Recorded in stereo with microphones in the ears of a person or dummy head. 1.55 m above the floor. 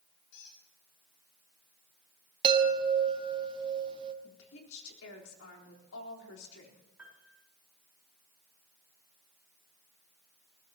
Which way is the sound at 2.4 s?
30° right (ahead or behind).